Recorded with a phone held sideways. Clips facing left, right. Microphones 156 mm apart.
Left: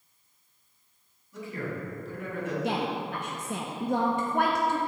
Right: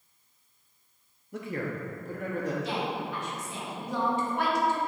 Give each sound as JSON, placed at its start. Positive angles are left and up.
{"t": 1.3, "sound": "a man speaking", "side_deg": -65, "distance_m": 1.6}
{"t": 2.6, "sound": "a woman speaking", "side_deg": 55, "distance_m": 0.7}